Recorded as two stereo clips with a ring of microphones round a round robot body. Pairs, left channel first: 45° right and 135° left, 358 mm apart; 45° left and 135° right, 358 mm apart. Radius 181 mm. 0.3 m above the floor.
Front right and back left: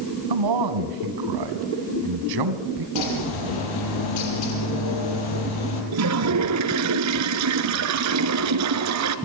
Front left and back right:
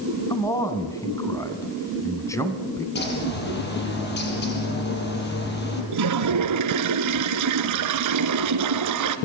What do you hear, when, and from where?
0.3 s a man speaking: 125° left, 3 m
3.0 s a bird: 20° right, 6 m
5.9 s a toilet flushing: straight behind, 1.6 m